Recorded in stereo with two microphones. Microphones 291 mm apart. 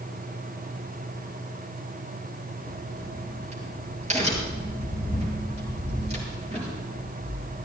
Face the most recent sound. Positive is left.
turn(degrees=-25)  # may be behind; listen again after turning